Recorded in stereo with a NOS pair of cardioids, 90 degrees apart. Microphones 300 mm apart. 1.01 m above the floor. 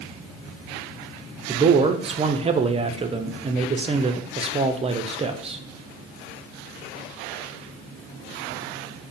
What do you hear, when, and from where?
1.5 s a man speaking: 20° right, 0.5 m